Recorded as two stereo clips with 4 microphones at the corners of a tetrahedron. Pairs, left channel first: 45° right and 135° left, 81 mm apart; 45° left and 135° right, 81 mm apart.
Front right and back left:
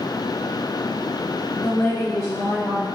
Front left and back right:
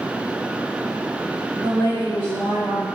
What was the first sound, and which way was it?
A woman speaking, 25° left.